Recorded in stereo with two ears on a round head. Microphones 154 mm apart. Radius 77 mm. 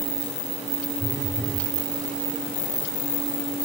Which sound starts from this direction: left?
A phone buzzing, at 1.0 s.